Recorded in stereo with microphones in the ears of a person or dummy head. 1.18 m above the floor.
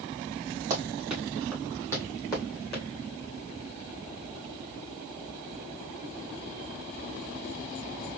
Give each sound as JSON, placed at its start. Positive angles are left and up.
{"t": 0.7, "sound": "running footsteps", "side_deg": -25, "distance_m": 1.3}